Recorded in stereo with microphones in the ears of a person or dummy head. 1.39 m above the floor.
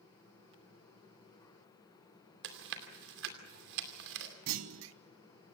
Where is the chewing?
70° right (ahead or behind), 2.5 m.